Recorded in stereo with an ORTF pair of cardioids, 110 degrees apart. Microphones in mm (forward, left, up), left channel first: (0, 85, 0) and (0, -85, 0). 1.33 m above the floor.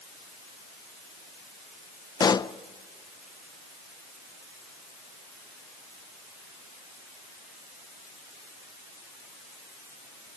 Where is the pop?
25° left, 0.6 m.